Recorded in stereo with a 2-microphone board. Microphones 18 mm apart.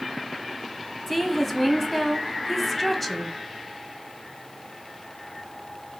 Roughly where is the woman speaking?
Centre.